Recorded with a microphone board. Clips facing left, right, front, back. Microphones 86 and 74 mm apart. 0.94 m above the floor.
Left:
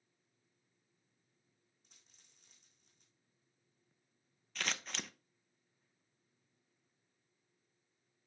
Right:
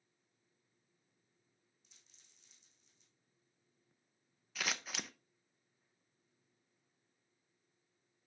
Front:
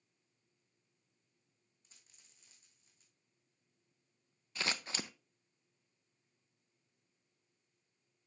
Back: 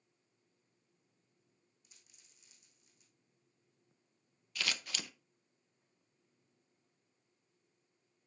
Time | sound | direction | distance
1.8 | a dropped coin | 50° left | 3.5 m
4.5 | scissors | 10° right | 0.5 m